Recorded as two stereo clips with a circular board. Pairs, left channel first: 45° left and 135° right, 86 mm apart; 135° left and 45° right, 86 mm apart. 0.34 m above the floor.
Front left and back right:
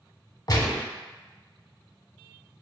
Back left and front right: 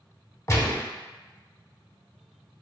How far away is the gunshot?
About 0.8 m.